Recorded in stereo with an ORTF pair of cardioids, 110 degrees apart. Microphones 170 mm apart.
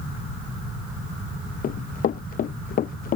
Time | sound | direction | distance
1.6 | running footsteps | 55° left | ?